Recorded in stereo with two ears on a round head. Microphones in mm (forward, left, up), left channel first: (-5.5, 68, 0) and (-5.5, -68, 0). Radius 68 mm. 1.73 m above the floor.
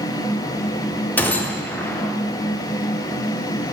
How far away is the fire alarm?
I don't hear a fire alarm.